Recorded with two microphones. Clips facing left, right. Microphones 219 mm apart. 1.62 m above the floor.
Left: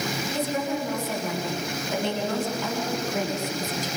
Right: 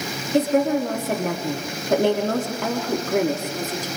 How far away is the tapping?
No tapping in this recording.